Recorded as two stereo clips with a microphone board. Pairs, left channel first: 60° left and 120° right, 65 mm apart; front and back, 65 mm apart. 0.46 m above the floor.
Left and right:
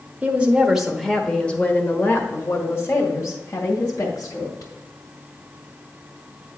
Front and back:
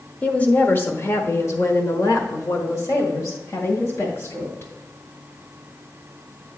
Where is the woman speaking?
60° right, 1.3 m; by 4.7 s 35° left, 3 m.